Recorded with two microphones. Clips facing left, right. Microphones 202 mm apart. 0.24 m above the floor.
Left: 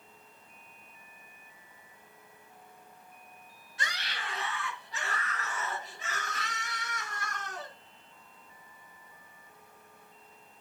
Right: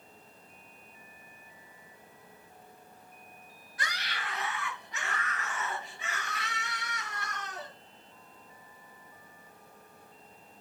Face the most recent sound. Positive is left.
turn(degrees=50)  # may be behind; listen again after turning